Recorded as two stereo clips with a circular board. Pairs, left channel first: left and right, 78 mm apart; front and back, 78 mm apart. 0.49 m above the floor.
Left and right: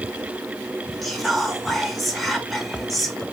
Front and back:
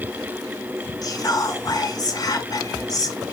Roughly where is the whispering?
Ahead.